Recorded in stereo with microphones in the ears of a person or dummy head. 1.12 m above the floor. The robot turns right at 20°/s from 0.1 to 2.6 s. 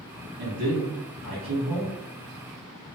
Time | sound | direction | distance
0.4 | a man speaking | 50° right | 1.6 m